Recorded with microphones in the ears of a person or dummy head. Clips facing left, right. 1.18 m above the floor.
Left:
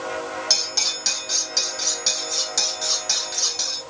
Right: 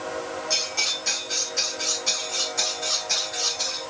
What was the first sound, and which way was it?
Cutlery clinking, 80° left.